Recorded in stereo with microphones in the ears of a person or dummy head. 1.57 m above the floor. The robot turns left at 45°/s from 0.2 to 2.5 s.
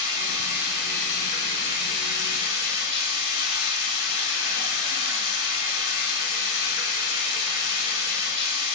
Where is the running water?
150° right, 0.8 m; by 8.7 s 105° left, 0.8 m.